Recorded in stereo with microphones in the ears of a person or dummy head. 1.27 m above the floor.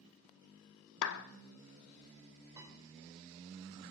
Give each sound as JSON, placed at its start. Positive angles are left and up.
{"t": 1.0, "sound": "a clap", "side_deg": 70, "distance_m": 0.8}
{"t": 2.6, "sound": "a piano", "side_deg": -15, "distance_m": 5.0}